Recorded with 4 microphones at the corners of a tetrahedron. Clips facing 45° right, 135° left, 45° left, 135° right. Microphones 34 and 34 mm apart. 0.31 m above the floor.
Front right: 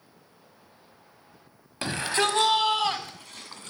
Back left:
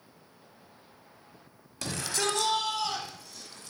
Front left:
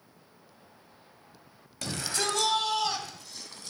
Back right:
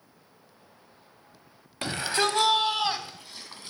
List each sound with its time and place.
1.8 s a shout: 85° right, 1.6 m; by 3.7 s 70° right, 2.5 m